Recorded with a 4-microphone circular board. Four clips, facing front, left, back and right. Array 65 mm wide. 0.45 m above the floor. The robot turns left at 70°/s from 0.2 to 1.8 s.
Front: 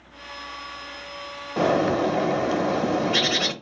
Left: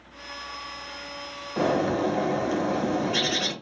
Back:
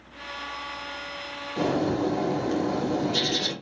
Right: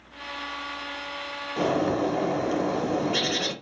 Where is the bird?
10° left, 0.5 m; by 3.5 s 5° right, 0.5 m.